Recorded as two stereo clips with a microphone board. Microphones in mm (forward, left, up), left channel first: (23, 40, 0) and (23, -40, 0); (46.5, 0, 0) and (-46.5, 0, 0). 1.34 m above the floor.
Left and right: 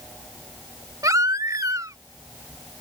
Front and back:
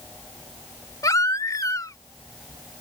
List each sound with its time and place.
1.0 s a baby crying: 50° right